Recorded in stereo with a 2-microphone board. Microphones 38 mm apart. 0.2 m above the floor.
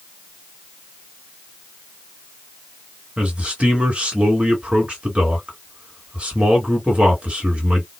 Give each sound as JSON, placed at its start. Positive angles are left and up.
{"t": 3.2, "sound": "a man speaking", "side_deg": -35, "distance_m": 2.0}